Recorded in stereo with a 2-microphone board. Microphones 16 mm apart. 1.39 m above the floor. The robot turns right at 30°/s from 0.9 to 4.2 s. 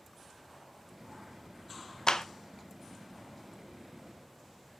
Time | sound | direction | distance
2.1 | a clap | 55° left (ahead or behind) | 0.7 m